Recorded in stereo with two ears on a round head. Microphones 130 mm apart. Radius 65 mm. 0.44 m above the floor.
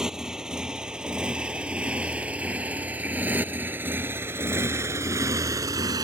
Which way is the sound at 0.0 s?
5° right (ahead or behind).